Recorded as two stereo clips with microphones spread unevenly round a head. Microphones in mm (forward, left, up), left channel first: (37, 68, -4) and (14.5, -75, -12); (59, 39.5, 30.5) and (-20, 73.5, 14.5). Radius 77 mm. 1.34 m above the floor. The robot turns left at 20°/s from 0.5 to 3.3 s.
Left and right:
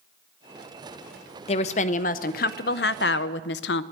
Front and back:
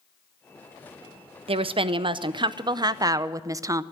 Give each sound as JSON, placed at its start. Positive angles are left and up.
{"t": 1.5, "sound": "a woman speaking", "azimuth_deg": 135, "distance_m": 0.5}